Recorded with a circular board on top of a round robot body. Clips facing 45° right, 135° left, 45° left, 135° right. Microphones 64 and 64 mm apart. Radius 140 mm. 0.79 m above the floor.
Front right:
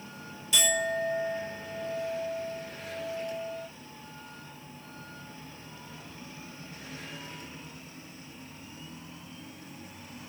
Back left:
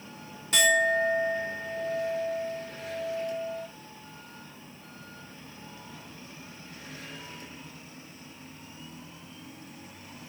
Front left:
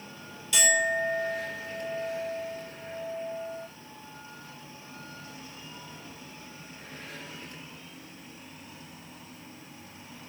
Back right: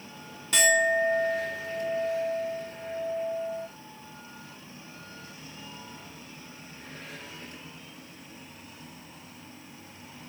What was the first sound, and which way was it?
A clink, straight behind.